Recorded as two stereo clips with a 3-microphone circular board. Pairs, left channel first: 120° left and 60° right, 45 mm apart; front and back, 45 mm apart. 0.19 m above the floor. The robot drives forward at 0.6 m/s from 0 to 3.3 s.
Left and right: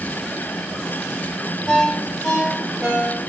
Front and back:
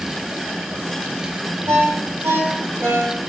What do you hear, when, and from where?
1.7 s a ringtone: 165° right, 3.5 m; by 3.3 s 170° right, 4.5 m